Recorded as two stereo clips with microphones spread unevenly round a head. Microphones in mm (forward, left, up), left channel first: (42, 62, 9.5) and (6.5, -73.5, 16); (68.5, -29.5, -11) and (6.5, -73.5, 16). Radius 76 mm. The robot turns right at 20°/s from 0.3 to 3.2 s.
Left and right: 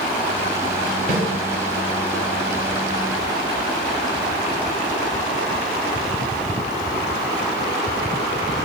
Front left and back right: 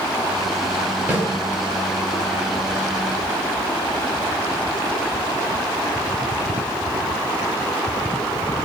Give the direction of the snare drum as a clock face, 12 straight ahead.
4 o'clock.